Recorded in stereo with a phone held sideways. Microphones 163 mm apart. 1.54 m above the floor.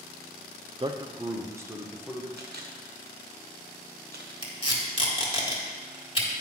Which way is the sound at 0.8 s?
30° right (ahead or behind).